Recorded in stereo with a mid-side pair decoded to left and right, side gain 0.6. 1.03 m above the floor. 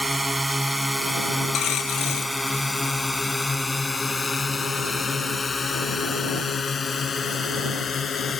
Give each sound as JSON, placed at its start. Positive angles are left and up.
{"t": 0.0, "sound": "a drone", "azimuth_deg": -5}
{"t": 1.5, "sound": "a dropped coin", "azimuth_deg": 55}